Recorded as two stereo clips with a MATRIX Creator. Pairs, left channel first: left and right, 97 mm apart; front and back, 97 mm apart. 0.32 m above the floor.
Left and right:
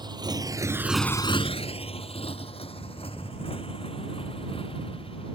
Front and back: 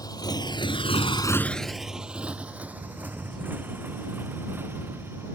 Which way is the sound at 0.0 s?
50° right.